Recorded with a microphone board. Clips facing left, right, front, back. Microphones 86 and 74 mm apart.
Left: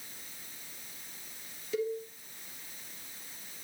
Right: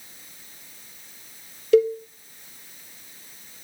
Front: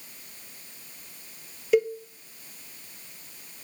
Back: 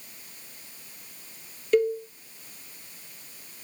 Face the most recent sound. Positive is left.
turn(degrees=-85)